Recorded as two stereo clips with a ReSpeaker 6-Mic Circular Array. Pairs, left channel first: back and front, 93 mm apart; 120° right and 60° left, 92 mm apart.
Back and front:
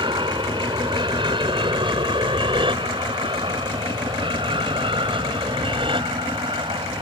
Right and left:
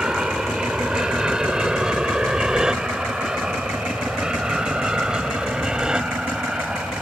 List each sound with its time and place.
0.0 s an aircraft: 20° right